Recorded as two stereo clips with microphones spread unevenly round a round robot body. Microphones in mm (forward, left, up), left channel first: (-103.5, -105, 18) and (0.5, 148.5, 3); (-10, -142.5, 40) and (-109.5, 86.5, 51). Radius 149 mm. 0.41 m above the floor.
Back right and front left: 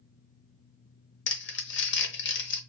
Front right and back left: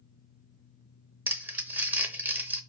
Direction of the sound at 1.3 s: 160° right.